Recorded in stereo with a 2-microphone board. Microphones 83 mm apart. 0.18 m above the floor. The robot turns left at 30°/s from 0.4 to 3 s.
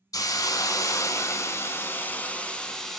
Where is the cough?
I don't hear a cough.